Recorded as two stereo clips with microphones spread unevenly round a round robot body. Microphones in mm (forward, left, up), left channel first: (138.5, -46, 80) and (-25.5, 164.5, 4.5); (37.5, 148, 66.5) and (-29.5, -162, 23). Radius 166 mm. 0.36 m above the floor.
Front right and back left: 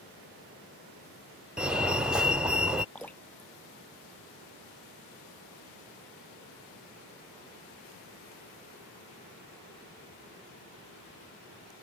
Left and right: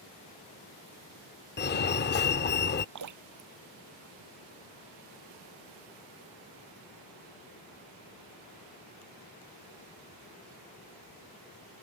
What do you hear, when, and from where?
1.6 s a fire alarm: 90° left
3.0 s dripping: 135° right